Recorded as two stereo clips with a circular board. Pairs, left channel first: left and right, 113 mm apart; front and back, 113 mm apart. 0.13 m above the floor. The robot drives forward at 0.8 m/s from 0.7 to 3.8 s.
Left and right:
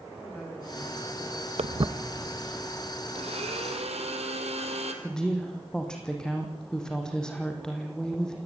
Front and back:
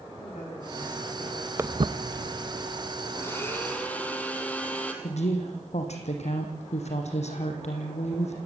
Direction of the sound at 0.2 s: 10° left.